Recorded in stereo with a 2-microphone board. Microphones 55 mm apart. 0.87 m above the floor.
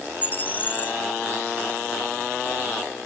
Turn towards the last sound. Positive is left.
turn(degrees=30)  # may be behind; listen again after turning